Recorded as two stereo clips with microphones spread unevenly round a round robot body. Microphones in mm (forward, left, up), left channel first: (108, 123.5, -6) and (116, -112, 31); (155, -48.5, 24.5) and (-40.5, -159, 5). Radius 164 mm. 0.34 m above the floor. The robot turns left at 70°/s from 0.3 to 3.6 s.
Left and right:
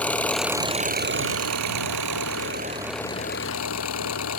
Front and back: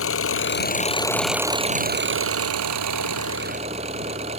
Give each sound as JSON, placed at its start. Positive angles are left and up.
{"t": 0.0, "sound": "an engine running", "azimuth_deg": 5}